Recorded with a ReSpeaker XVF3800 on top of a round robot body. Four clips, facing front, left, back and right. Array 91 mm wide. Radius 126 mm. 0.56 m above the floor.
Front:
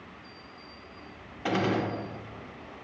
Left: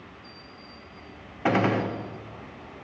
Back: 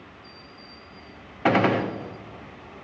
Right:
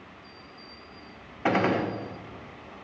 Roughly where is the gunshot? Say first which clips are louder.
Left 1 dB, back 7 dB; behind.